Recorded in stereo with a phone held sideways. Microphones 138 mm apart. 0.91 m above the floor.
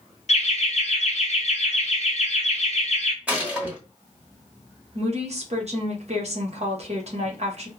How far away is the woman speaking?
About 0.9 m.